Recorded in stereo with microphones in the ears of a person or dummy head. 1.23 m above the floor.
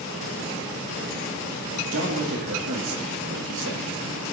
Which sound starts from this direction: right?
A man speaking, at 1.9 s.